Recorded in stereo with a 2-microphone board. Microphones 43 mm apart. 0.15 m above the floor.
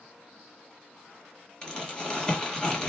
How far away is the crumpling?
About 1.6 m.